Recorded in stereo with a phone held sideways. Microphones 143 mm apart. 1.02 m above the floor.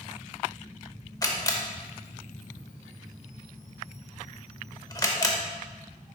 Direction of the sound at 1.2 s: 25° left (ahead or behind).